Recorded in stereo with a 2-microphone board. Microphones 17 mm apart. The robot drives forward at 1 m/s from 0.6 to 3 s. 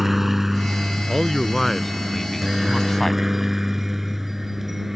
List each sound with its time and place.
0.0 s a helicopter: 15° right (ahead or behind); by 5.0 s 20° right (ahead or behind)
1.1 s a man speaking: 10° left (ahead or behind); by 3.2 s 20° left (ahead or behind)